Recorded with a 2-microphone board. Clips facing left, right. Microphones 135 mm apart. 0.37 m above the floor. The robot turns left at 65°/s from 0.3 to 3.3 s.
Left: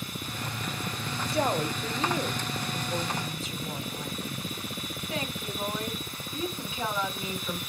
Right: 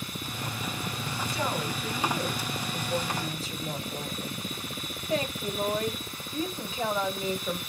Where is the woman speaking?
85° left, 1.4 m; by 7.6 s 45° right, 1.4 m.